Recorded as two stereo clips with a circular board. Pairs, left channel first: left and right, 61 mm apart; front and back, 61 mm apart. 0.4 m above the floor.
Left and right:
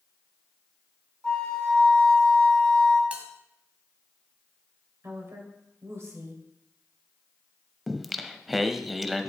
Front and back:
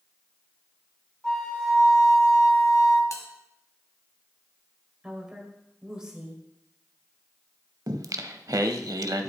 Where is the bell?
25° right, 1.3 m.